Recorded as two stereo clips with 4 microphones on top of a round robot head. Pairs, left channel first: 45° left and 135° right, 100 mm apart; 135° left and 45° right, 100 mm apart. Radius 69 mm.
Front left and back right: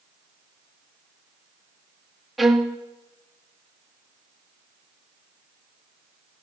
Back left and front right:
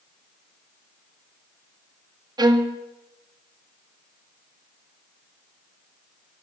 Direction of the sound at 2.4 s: 45° right.